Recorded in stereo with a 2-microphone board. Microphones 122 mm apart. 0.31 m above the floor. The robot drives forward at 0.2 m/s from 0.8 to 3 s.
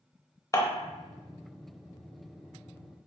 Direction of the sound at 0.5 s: 30° left (ahead or behind).